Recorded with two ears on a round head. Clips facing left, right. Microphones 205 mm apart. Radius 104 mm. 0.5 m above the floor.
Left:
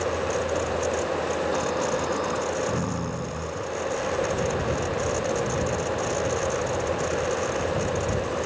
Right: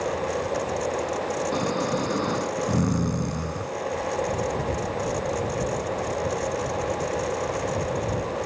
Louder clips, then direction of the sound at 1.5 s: Even; 30° right (ahead or behind).